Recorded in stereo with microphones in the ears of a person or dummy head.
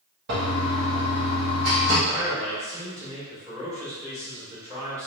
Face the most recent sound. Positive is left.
turn(degrees=-15)  # may be behind; listen again after turning